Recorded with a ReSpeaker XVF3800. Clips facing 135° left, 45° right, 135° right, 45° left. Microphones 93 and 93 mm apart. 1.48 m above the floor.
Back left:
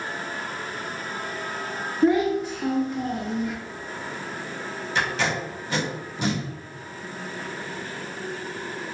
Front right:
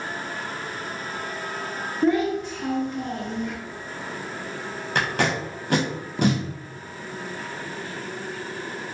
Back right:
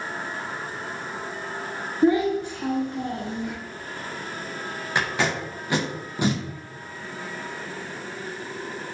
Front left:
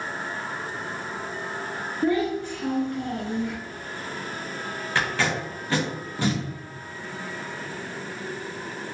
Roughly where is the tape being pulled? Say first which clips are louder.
Front right 2 dB, back right 1 dB; ahead right.